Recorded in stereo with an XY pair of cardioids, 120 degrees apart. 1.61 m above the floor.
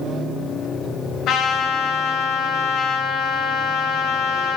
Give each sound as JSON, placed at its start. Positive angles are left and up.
{"t": 1.3, "sound": "a trumpet", "azimuth_deg": 70, "distance_m": 2.5}